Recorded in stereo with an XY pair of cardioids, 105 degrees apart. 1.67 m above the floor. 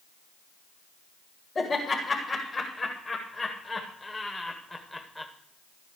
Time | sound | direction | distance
1.6 | laughter | 40° left | 3 m